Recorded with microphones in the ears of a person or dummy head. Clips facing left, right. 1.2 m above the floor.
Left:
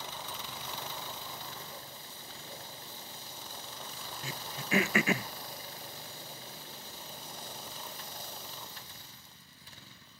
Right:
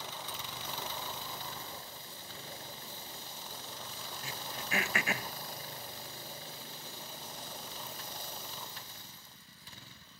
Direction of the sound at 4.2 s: 70° left (ahead or behind).